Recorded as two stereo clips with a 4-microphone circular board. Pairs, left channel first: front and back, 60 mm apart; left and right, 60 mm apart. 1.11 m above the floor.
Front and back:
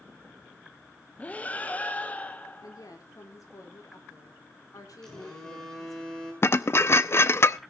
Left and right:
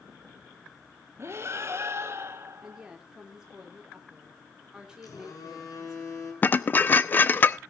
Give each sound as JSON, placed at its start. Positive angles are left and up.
{"t": 1.2, "sound": "breathing", "azimuth_deg": -60, "distance_m": 1.2}
{"t": 2.6, "sound": "a woman speaking", "azimuth_deg": -10, "distance_m": 4.0}
{"t": 5.0, "sound": "a phone buzzing", "azimuth_deg": 80, "distance_m": 6.5}
{"t": 6.4, "sound": "dishes clattering", "azimuth_deg": 40, "distance_m": 0.6}